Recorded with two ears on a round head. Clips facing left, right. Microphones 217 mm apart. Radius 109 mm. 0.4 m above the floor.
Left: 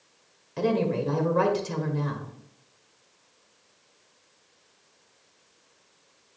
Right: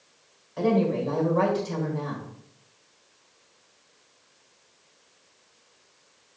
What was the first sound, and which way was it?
A woman speaking, 40° left (ahead or behind).